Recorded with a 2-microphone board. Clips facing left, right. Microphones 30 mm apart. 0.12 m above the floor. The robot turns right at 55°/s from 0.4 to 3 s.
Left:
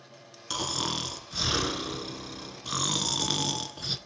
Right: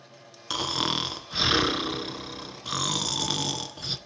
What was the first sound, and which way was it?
Snoring, 145° right.